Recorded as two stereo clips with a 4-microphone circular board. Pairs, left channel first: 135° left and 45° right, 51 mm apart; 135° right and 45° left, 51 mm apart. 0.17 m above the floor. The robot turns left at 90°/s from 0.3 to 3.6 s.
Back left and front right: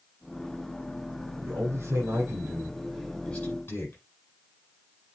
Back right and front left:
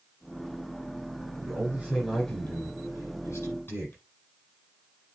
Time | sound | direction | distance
1.4 | a man speaking | 10° left | 7.5 m